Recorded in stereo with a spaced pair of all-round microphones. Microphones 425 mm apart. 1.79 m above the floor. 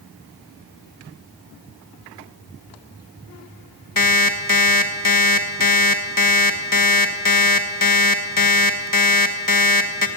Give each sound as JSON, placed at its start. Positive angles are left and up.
{"t": 4.0, "sound": "an alarm clock", "side_deg": 45, "distance_m": 1.3}